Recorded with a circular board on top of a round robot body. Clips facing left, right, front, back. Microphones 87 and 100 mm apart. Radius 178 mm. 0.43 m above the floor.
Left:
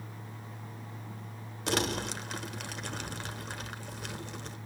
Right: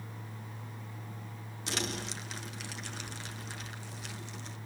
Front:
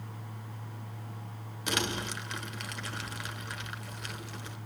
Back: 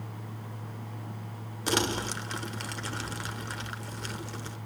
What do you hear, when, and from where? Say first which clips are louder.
1.7 s crumpling: left 6 dB, back 4 dB; 125° left, 1.2 m